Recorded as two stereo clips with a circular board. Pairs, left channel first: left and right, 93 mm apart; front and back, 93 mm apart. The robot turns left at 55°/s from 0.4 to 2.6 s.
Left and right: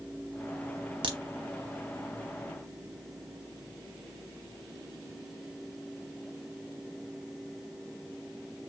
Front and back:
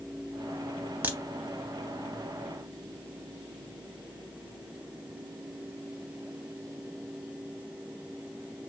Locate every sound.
1.0 s a crack: 110° right, 0.5 m; by 1.2 s 120° right, 0.5 m